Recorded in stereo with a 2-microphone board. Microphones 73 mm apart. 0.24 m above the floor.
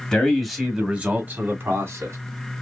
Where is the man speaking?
10° left (ahead or behind), 1.8 m; by 2.2 s 40° right (ahead or behind), 2.5 m.